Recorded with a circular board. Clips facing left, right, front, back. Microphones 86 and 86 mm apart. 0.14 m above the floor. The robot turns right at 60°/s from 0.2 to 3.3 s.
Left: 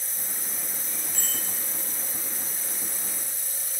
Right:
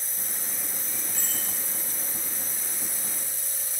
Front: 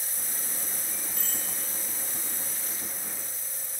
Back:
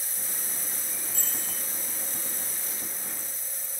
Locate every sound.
1.1 s a bicycle bell: 170° right, 6.5 m; by 1.4 s 155° right, 6.5 m